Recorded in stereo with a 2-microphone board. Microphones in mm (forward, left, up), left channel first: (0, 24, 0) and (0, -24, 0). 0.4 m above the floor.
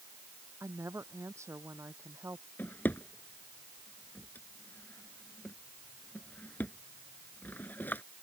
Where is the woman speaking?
70° right (ahead or behind).